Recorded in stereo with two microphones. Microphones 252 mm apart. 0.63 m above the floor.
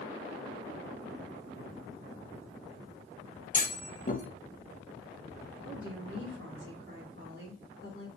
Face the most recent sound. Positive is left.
turn(degrees=-50)  # may be behind; listen again after turning